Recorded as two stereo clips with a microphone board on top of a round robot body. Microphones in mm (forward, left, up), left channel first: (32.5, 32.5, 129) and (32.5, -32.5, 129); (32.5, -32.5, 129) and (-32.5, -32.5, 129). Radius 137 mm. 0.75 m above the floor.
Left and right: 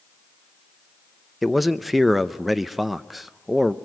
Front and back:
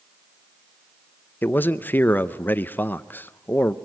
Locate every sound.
1.4 s a man speaking: 5° right, 0.8 m